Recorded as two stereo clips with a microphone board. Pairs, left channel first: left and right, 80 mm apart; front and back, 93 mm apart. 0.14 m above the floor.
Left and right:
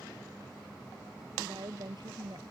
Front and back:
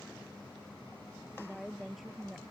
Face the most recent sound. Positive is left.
turn(degrees=-90)